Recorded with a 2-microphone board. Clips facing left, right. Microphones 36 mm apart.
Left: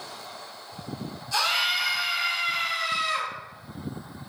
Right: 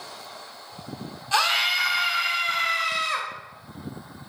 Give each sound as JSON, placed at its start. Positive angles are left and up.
{"t": 1.3, "sound": "a scream", "side_deg": -55, "distance_m": 1.7}